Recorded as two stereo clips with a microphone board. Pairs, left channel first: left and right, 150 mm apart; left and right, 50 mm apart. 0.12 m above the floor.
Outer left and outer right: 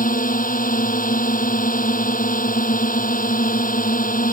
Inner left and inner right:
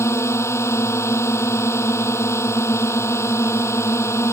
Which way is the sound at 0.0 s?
65° left (ahead or behind).